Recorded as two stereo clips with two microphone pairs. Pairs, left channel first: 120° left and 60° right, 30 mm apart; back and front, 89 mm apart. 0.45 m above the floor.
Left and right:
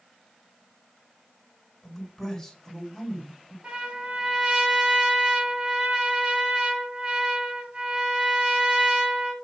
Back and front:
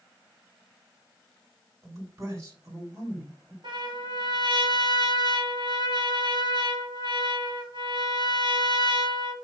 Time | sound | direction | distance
1.8 | a man speaking | 45° left | 2 m
3.6 | a trumpet | 20° right | 1.9 m